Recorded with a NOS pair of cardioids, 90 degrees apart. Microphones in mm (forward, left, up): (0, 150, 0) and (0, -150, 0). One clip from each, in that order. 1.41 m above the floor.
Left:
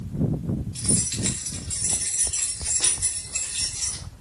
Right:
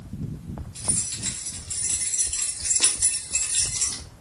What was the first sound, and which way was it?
Keys jangling, 25° left.